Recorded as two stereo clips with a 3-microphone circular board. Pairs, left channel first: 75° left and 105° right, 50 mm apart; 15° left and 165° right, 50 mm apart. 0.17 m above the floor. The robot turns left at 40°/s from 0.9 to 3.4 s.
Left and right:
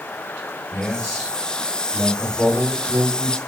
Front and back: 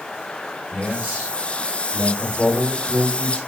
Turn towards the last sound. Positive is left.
turn(degrees=75)